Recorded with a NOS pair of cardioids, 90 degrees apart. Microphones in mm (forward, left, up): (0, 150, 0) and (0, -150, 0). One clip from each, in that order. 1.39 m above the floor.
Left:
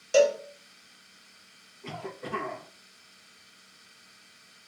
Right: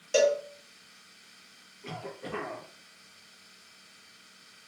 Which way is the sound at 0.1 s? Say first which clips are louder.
Left 2 dB; 10° left.